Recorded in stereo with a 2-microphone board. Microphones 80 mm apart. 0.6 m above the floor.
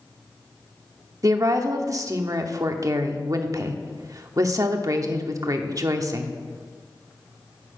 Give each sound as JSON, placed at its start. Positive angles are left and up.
{"t": 1.2, "sound": "a woman speaking", "side_deg": -45, "distance_m": 0.9}